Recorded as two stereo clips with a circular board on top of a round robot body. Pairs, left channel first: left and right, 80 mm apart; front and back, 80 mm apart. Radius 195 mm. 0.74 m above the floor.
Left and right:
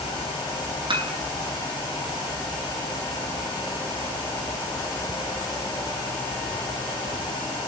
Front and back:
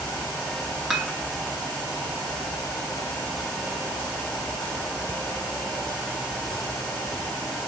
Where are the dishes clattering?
90° right, 6.5 m.